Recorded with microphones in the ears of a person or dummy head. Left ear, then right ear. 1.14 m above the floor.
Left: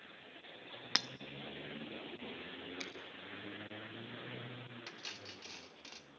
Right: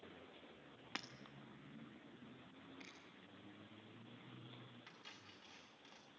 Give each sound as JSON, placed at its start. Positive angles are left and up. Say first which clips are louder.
{"t": 0.9, "sound": "breaking glass", "louder": "left 14 dB", "side_deg": 40, "distance_m": 0.7}
{"t": 2.8, "sound": "a finger snap", "louder": "left 11 dB", "side_deg": 65, "distance_m": 4.5}
{"t": 4.9, "sound": "cutlery clinking", "louder": "left 13 dB", "side_deg": 45, "distance_m": 1.9}